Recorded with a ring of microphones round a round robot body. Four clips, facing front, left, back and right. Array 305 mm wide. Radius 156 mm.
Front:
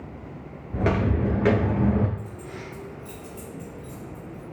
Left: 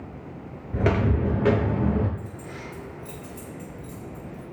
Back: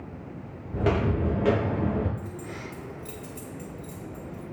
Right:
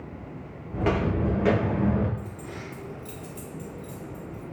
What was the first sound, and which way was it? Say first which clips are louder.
Footsteps: left 2 dB, front 1 dB; 80° left.